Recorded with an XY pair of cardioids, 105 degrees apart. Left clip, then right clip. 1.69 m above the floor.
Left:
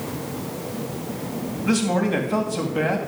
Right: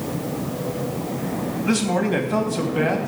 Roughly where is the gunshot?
I don't hear a gunshot.